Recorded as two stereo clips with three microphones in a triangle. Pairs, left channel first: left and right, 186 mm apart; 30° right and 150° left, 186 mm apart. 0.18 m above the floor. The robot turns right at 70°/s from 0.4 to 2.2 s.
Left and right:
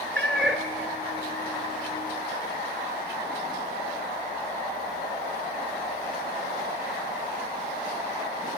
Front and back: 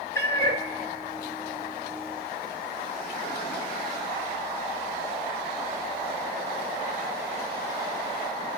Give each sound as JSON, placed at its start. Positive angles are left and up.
{"t": 0.1, "sound": "a cat meowing", "azimuth_deg": 175, "distance_m": 0.8}